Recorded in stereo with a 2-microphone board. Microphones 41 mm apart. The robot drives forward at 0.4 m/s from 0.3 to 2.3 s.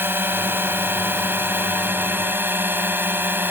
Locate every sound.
0.0 s a drone: 60° right (ahead or behind); by 3.5 s 55° right (ahead or behind)